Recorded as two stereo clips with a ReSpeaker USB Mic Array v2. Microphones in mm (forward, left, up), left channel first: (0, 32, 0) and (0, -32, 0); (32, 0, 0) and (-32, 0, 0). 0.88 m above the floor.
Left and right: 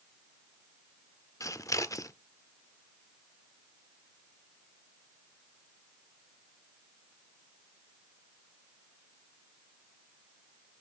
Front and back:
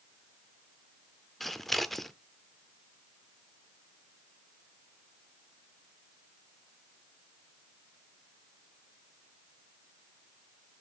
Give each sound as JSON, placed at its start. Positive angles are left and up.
{"t": 1.4, "sound": "scissors", "azimuth_deg": 90, "distance_m": 0.7}